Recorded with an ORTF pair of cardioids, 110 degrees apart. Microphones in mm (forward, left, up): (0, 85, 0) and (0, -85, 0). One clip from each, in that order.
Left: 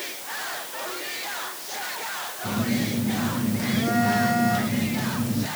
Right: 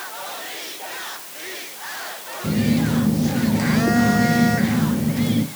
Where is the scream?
I don't hear a scream.